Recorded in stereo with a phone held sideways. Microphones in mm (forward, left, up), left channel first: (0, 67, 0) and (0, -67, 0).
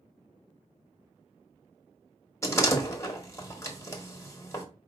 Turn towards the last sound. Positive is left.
turn(degrees=20)  # may be behind; listen again after turning